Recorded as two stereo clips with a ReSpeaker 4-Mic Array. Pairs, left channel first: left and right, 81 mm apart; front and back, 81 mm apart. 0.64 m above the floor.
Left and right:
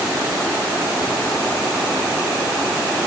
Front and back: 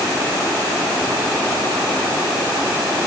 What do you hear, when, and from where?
Only background noise.